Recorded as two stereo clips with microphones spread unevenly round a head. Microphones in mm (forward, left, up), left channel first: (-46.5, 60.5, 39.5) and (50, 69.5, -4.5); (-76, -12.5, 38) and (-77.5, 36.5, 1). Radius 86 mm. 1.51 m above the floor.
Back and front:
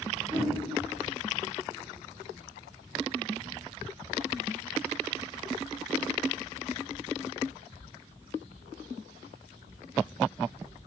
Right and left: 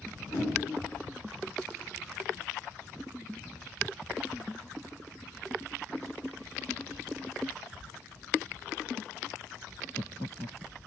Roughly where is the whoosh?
Right.